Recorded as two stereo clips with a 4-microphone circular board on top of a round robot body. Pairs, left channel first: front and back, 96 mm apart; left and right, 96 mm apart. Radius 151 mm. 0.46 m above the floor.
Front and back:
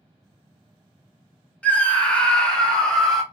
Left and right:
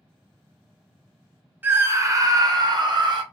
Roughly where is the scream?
Ahead right.